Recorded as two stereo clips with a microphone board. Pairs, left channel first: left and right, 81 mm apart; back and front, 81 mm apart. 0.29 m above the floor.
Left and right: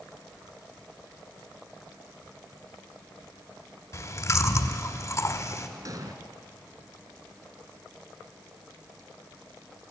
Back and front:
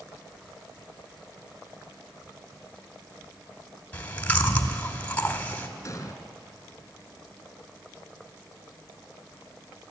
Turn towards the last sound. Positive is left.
turn(degrees=-130)